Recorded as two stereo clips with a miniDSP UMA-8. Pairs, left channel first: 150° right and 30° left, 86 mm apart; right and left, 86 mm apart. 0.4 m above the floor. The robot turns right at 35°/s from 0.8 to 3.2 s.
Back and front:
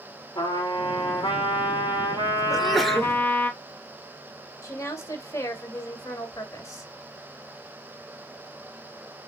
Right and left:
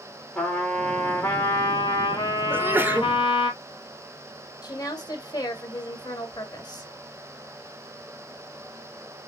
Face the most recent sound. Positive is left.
turn(degrees=-110)